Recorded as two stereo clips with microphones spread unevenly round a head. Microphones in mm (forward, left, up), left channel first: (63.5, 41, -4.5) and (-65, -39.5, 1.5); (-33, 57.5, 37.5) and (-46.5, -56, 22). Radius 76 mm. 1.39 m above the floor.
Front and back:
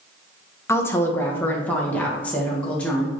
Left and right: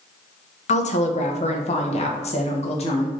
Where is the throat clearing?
No throat clearing in this recording.